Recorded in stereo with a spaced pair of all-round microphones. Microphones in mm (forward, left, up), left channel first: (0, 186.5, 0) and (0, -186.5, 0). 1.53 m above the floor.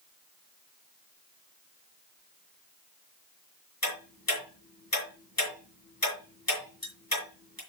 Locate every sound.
3.8 s ticking: 65° left (ahead or behind), 4.5 m